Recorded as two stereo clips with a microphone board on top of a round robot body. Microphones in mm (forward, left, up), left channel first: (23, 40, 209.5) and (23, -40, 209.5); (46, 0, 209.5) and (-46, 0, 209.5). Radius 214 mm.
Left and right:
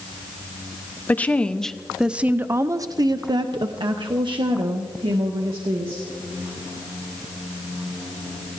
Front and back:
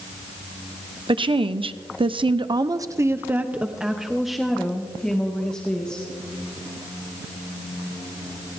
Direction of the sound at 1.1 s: 155° left.